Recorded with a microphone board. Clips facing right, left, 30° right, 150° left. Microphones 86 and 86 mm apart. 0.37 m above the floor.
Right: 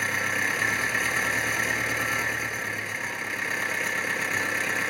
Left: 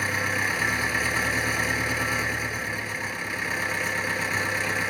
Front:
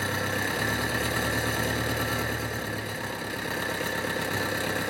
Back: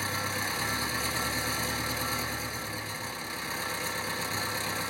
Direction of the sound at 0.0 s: Straight ahead.